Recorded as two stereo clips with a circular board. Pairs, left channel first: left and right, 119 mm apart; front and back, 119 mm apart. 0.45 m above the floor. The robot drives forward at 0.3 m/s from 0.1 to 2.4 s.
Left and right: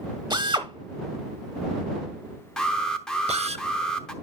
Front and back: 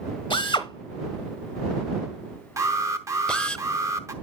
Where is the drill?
40° right, 0.9 m; by 3.6 s 80° right, 0.6 m.